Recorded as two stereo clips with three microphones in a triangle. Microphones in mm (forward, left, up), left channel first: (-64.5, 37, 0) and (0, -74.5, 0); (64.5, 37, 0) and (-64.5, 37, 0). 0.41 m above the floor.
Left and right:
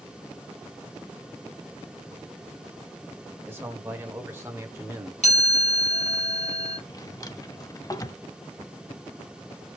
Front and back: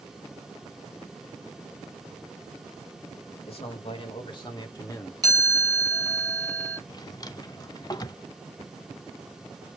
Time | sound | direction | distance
3.5 | a man speaking | 5° left | 1.5 m
5.2 | a chime | 125° left | 3 m
6.9 | a drawer | 60° left | 0.6 m